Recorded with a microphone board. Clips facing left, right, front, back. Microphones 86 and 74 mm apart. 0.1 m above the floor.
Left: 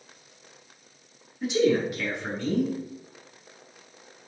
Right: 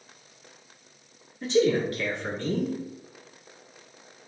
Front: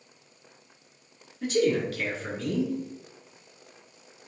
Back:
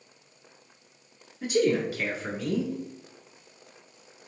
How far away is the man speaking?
About 1.1 m.